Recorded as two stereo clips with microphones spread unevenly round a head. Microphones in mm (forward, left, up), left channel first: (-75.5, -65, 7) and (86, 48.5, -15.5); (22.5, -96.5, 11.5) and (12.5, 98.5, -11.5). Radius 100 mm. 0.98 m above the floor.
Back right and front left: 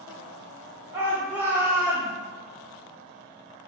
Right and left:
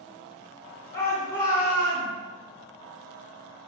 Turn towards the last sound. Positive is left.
turn(degrees=-45)